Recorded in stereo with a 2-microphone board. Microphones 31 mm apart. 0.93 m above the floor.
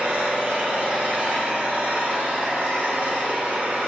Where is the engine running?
80° right, 2.5 m.